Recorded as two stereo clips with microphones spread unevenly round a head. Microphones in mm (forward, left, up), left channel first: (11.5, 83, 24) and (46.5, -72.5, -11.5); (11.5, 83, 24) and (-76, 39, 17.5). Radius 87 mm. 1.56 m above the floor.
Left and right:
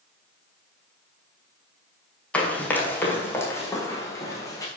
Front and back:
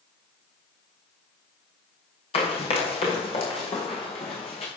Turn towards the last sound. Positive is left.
turn(degrees=40)